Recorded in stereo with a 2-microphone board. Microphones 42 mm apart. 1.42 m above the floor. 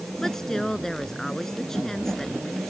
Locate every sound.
0.2 s a woman speaking: 10° left (ahead or behind)